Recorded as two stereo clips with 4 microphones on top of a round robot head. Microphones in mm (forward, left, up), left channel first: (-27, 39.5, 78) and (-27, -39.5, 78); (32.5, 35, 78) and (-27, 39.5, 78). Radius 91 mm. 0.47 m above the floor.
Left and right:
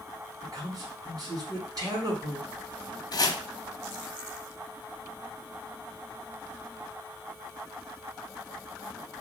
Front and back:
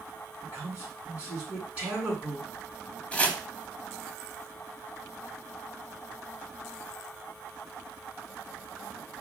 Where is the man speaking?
120° right, 2.5 m.